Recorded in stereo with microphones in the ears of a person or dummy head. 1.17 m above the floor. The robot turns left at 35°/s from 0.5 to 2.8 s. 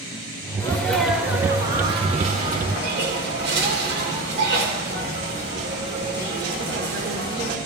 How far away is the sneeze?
About 3.5 m.